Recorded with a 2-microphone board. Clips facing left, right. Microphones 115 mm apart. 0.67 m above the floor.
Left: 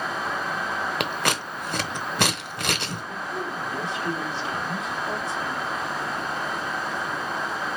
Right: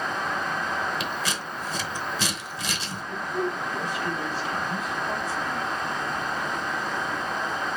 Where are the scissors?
60° left (ahead or behind), 0.8 m.